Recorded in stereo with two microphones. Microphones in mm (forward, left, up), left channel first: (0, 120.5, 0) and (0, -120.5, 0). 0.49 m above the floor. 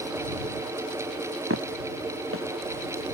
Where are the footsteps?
70° right (ahead or behind); by 3.1 s 65° right (ahead or behind).